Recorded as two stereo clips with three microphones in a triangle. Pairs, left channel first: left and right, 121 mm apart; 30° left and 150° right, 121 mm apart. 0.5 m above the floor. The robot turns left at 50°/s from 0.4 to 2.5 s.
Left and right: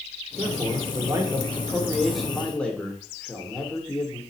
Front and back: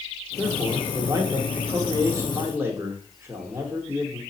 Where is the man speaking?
95° right, 1.0 m; by 4.2 s 160° left, 1.0 m.